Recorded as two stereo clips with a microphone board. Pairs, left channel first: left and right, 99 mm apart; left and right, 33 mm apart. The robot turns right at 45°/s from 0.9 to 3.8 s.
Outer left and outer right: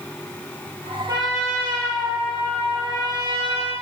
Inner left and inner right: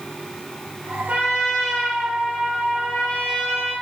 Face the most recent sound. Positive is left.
turn(degrees=85)